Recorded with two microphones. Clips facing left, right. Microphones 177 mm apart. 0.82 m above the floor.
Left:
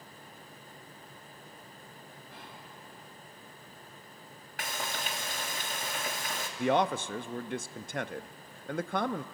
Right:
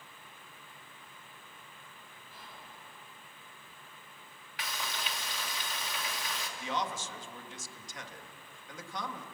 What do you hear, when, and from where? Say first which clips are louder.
2.3 s whispering: left 1 dB; 70° left (ahead or behind), 5.5 m
4.6 s frying: left 3 dB; 50° left (ahead or behind), 1.6 m
6.6 s a man speaking: left 10 dB; 60° left (ahead or behind), 0.7 m